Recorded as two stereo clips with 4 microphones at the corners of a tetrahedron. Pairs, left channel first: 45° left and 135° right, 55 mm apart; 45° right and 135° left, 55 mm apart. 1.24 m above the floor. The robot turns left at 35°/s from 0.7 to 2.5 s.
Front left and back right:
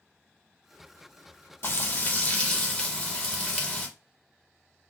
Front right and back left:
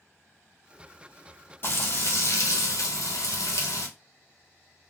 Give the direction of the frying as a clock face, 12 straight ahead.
12 o'clock.